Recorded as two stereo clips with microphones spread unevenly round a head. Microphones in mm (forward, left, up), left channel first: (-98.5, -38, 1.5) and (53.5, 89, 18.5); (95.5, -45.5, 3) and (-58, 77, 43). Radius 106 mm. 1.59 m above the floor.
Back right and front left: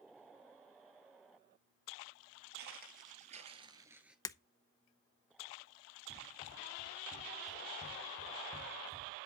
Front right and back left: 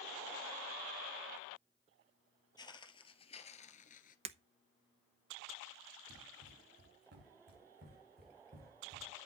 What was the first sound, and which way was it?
Footsteps, 35° left.